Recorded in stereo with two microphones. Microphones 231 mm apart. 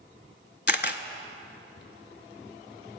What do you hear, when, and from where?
0.7 s a camera shutter: 50° left (ahead or behind), 0.6 m